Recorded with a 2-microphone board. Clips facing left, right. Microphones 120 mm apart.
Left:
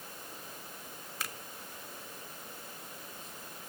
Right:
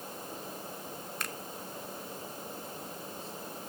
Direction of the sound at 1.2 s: Centre (ahead or behind).